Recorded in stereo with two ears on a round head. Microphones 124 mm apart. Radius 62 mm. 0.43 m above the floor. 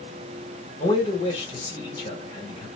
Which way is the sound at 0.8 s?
35° left (ahead or behind).